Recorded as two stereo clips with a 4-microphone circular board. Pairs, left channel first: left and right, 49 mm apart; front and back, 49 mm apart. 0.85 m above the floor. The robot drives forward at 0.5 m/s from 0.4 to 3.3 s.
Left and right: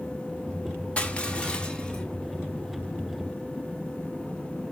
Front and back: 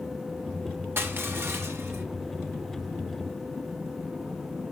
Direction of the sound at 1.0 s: 145° left.